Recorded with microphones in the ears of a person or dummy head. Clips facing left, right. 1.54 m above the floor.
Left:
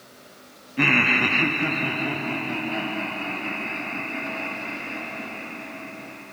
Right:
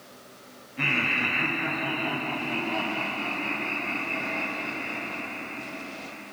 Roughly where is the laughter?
Left.